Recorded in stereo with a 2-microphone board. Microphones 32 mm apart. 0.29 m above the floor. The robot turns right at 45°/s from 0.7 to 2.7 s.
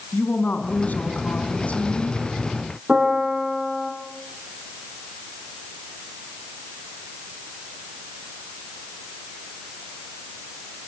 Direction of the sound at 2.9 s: 20° right (ahead or behind).